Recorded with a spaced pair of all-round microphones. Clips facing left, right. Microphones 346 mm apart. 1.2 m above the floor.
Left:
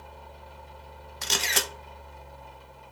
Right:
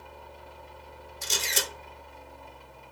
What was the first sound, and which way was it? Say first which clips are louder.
A fan: right 1 dB; 45° left (ahead or behind).